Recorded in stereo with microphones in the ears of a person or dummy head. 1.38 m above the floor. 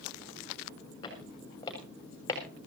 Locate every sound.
1.0 s footsteps: 25° left (ahead or behind), 7 m; by 2.4 s 20° left (ahead or behind), 6.5 m